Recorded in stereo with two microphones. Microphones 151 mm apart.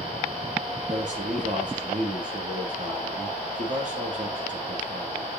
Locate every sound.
0.9 s a man speaking: 55° right (ahead or behind), 3.5 m